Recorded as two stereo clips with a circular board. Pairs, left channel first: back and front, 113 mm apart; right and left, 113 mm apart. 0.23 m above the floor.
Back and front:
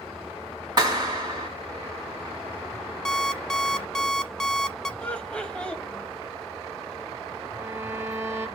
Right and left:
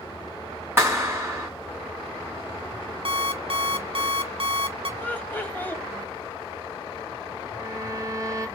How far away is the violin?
About 1.0 m.